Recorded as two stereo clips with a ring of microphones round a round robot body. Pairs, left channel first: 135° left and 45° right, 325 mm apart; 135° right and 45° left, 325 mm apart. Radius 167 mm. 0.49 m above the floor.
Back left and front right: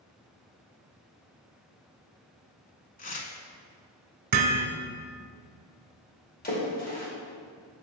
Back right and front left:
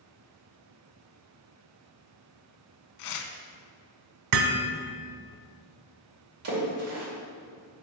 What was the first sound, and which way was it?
Tearing paper, 160° right.